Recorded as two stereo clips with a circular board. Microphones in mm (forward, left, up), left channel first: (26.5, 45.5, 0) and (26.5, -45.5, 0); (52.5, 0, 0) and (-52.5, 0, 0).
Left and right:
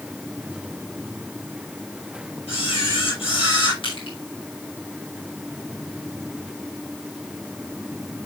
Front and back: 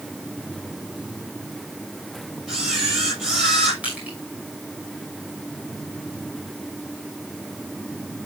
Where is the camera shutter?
100° left, 8 m.